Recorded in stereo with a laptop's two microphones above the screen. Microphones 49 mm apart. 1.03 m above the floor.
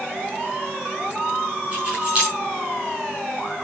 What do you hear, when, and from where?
1.7 s keys jangling: 25° right (ahead or behind), 7.5 m